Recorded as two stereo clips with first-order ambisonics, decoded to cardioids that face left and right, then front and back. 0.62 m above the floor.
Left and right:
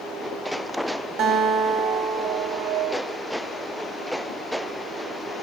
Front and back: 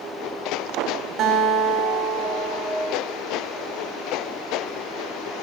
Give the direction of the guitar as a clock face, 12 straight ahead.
4 o'clock.